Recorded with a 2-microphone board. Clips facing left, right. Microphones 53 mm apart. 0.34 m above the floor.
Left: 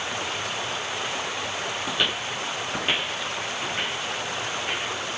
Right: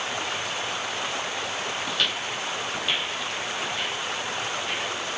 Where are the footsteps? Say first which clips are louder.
Left 2 dB; 5° left (ahead or behind), 0.5 m; by 4.9 s 40° left (ahead or behind), 4 m.